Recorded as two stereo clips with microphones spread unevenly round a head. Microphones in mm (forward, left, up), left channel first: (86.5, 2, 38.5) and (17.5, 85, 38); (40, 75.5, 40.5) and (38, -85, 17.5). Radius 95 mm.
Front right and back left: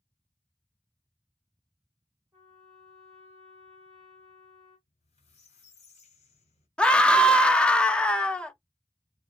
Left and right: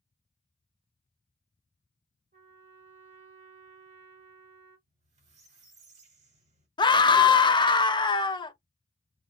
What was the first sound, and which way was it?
A trumpet, 140° right.